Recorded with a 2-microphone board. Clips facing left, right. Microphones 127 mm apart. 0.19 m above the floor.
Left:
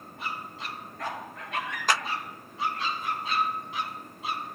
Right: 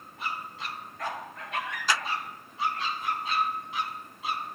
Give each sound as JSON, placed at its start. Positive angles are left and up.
{"t": 1.9, "sound": "a clap", "side_deg": 50, "distance_m": 1.5}